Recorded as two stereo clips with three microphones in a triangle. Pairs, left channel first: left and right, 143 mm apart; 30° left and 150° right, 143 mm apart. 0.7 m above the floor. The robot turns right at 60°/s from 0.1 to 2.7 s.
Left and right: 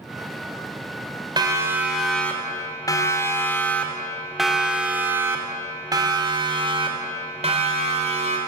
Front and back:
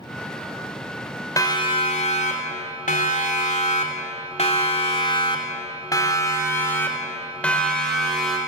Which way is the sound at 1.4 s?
35° right.